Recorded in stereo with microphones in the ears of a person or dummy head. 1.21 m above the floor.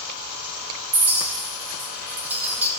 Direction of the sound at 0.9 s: 10° right (ahead or behind).